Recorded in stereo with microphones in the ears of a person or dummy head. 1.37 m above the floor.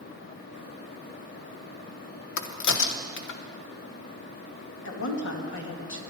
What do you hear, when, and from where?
2.4 s a crack: 80° left, 1.0 m
4.8 s a woman speaking: 75° left (ahead or behind), 2.5 m